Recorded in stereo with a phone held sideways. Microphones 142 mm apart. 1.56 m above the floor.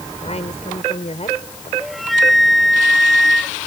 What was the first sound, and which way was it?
A woman speaking, 50° left (ahead or behind).